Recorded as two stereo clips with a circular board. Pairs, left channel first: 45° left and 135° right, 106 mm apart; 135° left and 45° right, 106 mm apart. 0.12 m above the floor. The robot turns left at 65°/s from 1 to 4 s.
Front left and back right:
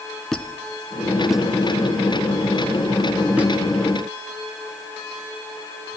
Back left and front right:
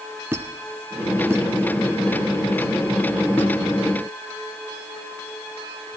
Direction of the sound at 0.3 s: 30° right.